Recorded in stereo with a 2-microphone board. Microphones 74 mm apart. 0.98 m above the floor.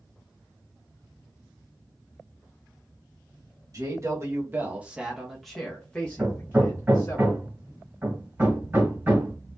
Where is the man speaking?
45° right (ahead or behind), 1.4 m; by 7.2 s 40° left (ahead or behind), 1.6 m.